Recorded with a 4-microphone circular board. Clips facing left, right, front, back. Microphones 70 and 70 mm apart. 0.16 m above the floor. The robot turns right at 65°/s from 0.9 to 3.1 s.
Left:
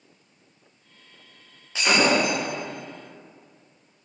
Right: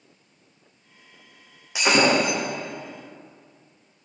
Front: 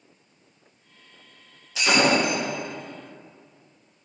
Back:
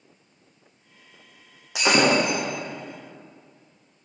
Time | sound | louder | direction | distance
1.8 | breaking glass | right 1 dB, back 1 dB | 165° right | 5 m